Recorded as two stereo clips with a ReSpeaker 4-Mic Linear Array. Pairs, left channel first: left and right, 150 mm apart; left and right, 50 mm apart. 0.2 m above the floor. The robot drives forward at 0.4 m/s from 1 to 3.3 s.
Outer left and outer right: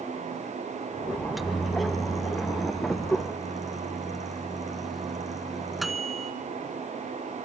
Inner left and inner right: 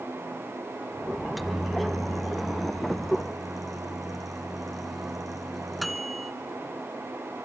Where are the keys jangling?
I don't hear keys jangling.